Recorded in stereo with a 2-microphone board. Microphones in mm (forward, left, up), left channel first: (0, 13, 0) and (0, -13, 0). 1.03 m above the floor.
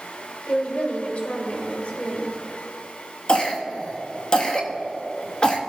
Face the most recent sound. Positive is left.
turn(degrees=25)  # may be behind; listen again after turning